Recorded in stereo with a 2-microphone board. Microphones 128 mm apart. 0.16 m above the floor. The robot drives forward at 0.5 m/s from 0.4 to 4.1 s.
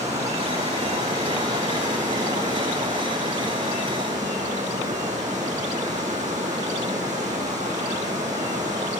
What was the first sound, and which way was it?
Running water, 60° right (ahead or behind).